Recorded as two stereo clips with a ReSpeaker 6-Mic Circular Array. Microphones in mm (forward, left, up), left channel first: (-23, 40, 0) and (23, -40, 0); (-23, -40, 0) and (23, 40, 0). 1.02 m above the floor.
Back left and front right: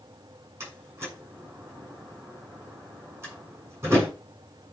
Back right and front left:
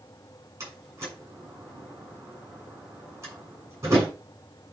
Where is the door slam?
5° left, 6.5 m.